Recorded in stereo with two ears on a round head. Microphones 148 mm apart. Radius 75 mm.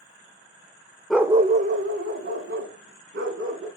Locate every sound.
1.1 s a dog barking: centre (ahead or behind), 0.6 m; by 3.7 s 80° right, 3.5 m